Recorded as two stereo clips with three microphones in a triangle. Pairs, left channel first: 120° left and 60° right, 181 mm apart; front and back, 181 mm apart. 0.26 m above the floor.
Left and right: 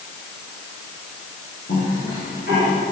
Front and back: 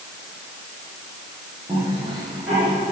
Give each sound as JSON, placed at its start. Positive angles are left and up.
{"t": 1.7, "sound": "a cough", "azimuth_deg": 90, "distance_m": 4.5}